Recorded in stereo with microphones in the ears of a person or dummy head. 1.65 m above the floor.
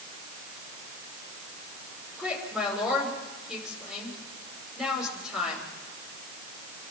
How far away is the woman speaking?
About 6.5 m.